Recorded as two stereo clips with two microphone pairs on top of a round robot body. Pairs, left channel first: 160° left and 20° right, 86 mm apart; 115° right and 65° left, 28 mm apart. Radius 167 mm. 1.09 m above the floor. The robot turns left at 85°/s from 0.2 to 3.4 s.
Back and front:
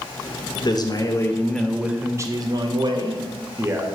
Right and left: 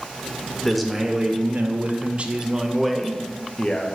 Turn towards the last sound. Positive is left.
turn(degrees=-70)